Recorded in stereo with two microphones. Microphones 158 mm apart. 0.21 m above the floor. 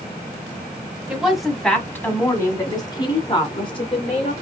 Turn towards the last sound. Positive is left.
turn(degrees=40)  # may be behind; listen again after turning